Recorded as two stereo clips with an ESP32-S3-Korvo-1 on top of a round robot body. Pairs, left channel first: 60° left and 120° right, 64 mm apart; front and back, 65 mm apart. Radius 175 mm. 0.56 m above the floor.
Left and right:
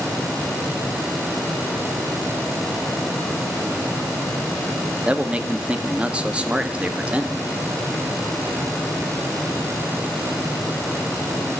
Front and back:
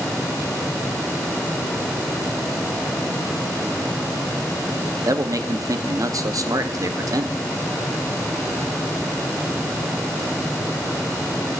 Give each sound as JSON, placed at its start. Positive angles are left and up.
{"t": 5.0, "sound": "a man speaking", "azimuth_deg": 170, "distance_m": 0.9}